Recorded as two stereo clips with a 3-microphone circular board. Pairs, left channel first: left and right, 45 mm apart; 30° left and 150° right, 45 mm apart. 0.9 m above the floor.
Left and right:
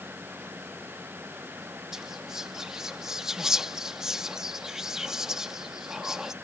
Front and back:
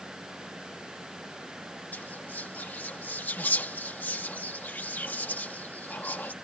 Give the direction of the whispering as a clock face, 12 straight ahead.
12 o'clock.